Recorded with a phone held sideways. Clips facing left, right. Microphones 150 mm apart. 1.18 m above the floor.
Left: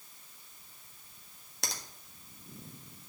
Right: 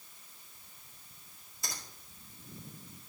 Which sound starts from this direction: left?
A finger snap, at 1.6 s.